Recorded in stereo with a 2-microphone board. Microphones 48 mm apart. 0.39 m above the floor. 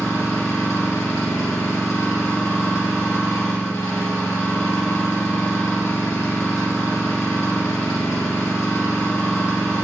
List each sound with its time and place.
0.0 s an engine running: 85° left, 2.5 m